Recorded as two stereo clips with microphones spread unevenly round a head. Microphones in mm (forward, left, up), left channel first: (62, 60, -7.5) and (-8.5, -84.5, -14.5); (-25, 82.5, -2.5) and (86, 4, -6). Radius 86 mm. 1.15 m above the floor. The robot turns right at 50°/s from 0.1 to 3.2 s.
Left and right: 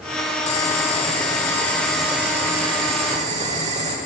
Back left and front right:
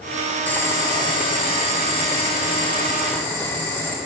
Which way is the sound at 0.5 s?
75° left.